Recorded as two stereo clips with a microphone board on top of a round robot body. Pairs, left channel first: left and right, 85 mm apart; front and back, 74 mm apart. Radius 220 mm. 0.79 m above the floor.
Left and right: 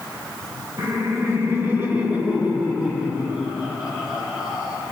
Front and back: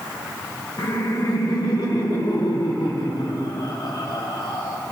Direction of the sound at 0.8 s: 40° right.